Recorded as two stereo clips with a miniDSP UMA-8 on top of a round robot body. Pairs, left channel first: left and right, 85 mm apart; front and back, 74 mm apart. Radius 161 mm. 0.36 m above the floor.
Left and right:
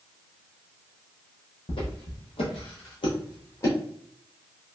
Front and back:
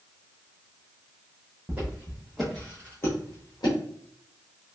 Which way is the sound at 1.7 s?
105° left.